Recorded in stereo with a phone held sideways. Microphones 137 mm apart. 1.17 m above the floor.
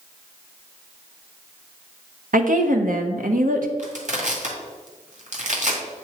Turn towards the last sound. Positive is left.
turn(degrees=-65)  # may be behind; listen again after turning